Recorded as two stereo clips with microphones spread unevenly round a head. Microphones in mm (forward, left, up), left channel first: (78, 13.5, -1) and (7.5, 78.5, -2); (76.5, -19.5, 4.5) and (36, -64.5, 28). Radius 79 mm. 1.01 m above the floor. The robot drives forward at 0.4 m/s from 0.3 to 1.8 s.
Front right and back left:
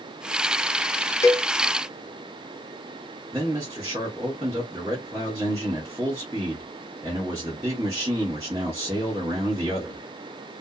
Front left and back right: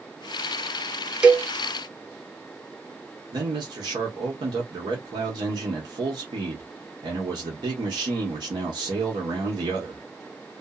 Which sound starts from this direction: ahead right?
A cowbell, at 1.2 s.